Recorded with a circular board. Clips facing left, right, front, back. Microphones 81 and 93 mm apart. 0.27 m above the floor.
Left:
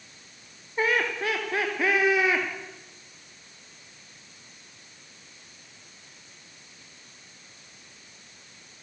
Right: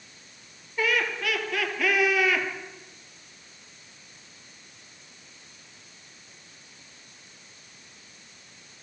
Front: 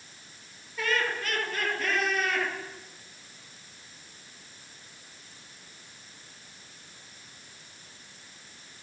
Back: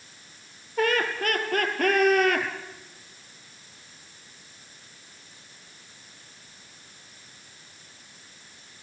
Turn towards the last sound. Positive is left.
turn(degrees=155)